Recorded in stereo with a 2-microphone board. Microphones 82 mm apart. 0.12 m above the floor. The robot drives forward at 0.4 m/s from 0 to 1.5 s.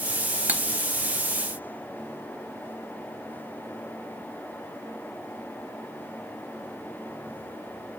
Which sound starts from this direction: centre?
Cutlery clinking, at 0.5 s.